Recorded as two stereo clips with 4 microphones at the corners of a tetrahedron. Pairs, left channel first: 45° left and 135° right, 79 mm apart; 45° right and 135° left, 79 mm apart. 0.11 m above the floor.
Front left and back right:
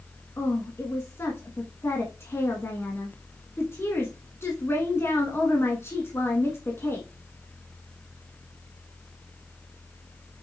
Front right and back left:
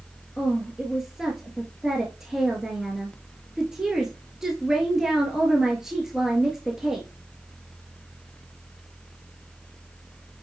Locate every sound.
0.4 s a woman speaking: 55° left, 1.4 m